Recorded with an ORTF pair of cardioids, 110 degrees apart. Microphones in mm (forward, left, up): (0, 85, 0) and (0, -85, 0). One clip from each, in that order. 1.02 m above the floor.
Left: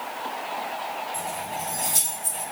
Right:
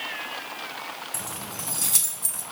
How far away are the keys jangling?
About 1.4 m.